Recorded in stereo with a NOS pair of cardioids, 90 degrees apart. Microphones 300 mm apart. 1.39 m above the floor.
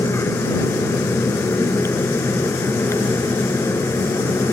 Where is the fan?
10° left.